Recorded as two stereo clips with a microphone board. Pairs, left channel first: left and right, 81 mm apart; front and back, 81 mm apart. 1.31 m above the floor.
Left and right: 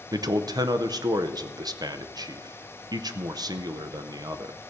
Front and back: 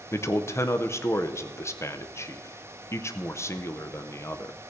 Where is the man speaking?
55° right, 0.6 m.